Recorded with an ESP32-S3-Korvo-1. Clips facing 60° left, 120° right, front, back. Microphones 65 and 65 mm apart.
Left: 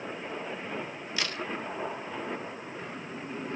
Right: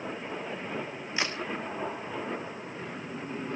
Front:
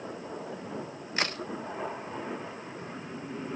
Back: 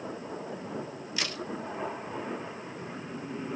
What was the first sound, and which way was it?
A crack, 55° right.